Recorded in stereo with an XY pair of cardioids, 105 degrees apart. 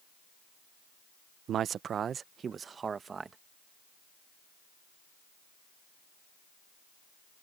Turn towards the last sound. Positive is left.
turn(degrees=-35)